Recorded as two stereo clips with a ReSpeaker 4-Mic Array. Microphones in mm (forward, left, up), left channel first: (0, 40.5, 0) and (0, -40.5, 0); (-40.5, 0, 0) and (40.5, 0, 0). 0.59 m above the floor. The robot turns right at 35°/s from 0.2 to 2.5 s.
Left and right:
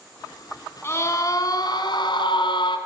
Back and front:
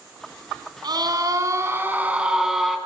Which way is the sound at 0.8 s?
30° left.